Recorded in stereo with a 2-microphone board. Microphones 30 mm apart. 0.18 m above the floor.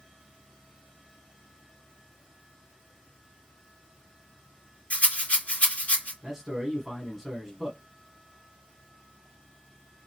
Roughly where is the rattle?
Left.